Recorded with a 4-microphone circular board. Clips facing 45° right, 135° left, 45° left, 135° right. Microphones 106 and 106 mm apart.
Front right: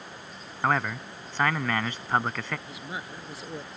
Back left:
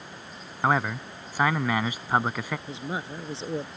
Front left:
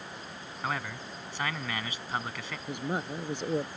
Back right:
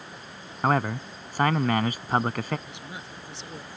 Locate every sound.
0.6 s a man speaking: 150° right
2.7 s a woman speaking: 75° left